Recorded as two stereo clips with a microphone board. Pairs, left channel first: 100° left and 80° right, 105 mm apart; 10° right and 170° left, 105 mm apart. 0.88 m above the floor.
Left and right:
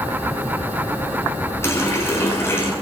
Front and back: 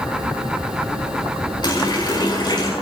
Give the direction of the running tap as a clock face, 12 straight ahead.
11 o'clock.